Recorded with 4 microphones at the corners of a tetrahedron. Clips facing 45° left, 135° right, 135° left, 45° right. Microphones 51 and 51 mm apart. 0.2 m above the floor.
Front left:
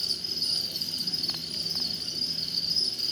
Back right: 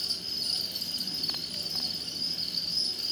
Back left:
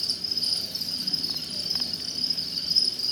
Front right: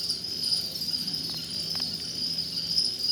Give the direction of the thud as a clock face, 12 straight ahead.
I don't hear a thud.